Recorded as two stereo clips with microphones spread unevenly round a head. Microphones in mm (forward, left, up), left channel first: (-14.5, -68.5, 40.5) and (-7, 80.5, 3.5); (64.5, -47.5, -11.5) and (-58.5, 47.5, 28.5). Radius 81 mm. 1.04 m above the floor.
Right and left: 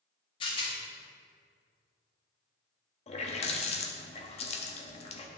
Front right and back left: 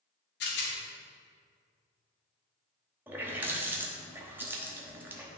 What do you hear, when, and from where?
0.4 s a rattle: 30° right, 1.6 m
3.1 s a running tap: 140° right, 1.0 m